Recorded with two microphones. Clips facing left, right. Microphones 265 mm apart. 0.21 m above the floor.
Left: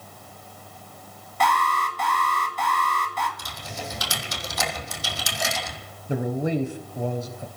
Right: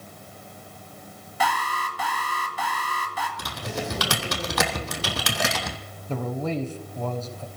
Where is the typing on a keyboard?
70° right (ahead or behind), 1.6 m.